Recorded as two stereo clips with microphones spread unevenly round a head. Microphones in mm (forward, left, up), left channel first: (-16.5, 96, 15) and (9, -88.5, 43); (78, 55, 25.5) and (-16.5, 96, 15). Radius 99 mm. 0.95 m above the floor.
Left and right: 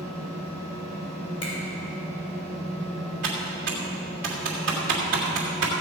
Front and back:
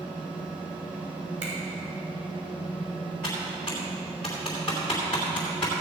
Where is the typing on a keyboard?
110° right, 2.5 m.